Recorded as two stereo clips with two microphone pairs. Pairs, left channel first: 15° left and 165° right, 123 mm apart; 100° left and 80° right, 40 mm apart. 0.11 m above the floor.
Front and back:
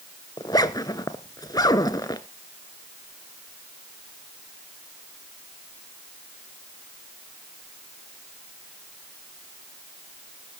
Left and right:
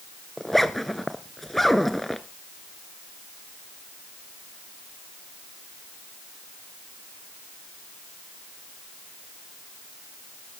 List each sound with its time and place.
0.4 s a zipper: 20° left, 0.8 m